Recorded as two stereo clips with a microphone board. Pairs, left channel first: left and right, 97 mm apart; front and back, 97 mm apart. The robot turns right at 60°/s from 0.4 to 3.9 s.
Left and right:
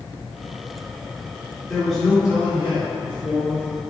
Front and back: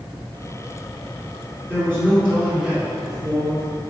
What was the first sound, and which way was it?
A man speaking, 160° left.